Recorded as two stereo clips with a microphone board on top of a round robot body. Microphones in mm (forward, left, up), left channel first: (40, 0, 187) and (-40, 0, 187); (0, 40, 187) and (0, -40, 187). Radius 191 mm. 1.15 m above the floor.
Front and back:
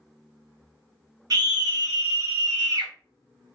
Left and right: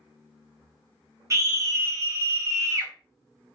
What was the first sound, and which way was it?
A scream, 140° right.